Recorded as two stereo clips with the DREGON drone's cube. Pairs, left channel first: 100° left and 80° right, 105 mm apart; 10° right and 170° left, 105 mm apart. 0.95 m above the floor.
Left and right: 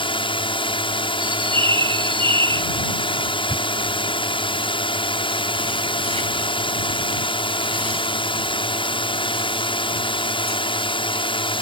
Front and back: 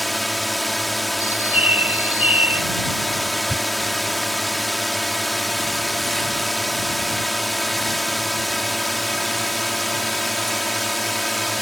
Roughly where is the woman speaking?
I don't hear a woman speaking.